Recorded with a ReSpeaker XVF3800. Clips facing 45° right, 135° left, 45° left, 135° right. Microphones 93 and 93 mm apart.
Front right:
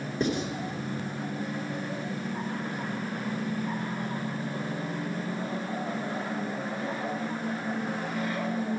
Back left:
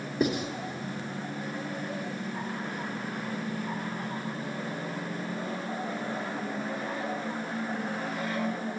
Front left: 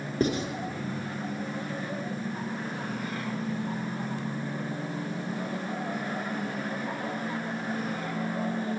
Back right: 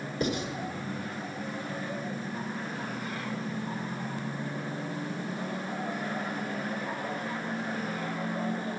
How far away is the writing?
About 1.4 m.